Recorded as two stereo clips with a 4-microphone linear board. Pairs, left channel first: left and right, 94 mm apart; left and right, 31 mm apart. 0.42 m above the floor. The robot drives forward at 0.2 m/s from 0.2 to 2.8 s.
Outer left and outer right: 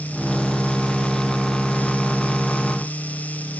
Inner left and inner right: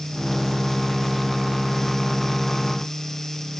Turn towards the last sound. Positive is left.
No sound to turn to.